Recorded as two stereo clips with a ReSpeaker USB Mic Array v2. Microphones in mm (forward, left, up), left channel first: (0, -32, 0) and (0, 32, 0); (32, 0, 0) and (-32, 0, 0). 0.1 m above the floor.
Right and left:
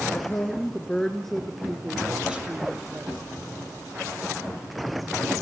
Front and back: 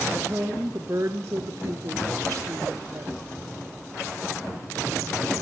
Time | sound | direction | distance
0.1 | a woman speaking | 130° right | 1.9 m